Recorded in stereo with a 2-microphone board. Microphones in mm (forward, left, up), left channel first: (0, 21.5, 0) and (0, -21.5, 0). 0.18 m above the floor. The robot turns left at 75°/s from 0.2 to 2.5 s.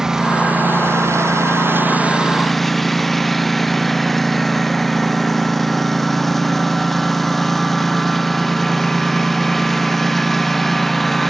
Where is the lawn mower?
15° right; by 11.3 s 175° left.